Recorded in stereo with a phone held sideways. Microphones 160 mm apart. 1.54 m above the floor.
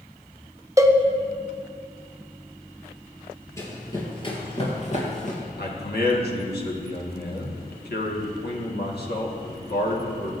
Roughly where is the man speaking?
Left.